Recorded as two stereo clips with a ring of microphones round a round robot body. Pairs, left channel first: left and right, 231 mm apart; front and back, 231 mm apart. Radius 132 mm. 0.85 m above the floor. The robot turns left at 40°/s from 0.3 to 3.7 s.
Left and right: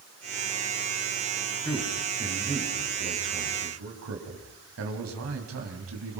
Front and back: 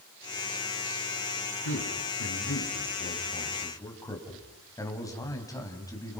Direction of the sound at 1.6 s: 5° left.